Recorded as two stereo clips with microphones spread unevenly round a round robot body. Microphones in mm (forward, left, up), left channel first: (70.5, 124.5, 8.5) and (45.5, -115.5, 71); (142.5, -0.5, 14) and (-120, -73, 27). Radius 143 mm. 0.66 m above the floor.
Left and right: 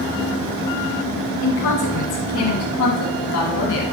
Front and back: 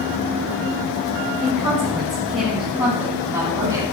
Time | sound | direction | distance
1.4 | a woman speaking | 120° left | 3 m